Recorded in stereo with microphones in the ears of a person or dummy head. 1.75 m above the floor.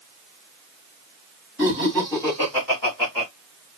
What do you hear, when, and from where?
1.6 s laughter: 5° left (ahead or behind), 2.5 m; by 3.3 s 15° left (ahead or behind), 3.5 m